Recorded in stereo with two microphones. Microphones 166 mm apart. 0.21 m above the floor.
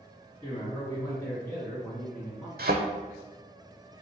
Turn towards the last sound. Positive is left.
turn(degrees=-70)  # may be behind; listen again after turning